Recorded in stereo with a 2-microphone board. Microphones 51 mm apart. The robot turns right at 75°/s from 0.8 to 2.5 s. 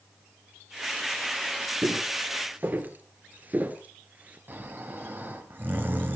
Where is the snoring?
40° right (ahead or behind), 2.5 m.